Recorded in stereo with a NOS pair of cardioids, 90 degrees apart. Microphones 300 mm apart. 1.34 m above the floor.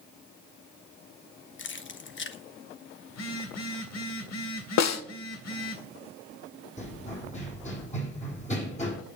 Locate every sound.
1.6 s keys jangling: 40° left, 1.2 m
3.1 s a phone buzzing: 60° left, 2.5 m
4.8 s a snare drum: 65° left, 1.2 m
6.8 s running footsteps: 25° left, 4 m